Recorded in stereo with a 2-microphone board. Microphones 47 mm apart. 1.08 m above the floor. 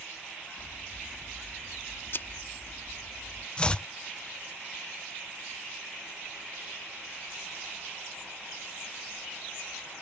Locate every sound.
0.6 s scissors: 55° left (ahead or behind)
3.6 s chopping: 20° left (ahead or behind)